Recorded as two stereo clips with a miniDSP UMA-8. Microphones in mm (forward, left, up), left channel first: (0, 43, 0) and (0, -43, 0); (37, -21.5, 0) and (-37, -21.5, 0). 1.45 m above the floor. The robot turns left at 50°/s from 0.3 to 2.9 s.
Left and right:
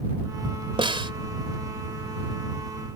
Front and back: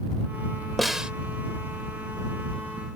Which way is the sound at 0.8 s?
90° right.